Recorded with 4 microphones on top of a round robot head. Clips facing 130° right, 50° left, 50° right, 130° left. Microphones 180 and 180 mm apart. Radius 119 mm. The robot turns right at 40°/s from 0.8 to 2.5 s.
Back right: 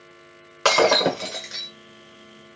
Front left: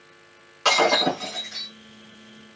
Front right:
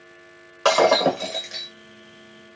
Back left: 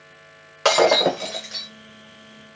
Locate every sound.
0.7 s breaking glass: 155° right, 1.2 m; by 1.7 s 120° right, 1.2 m